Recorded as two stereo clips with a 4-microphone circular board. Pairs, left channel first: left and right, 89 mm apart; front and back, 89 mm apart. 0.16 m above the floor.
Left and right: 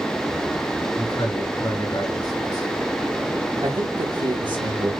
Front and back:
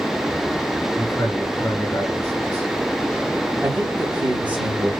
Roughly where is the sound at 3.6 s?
Right.